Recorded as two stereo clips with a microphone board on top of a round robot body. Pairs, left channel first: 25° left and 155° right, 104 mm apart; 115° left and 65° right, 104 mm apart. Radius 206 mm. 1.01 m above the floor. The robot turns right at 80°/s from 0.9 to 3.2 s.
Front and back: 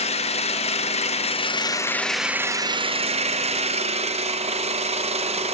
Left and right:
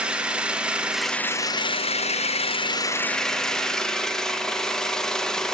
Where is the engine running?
10° left, 1.2 m; by 5.5 s 165° right, 1.2 m.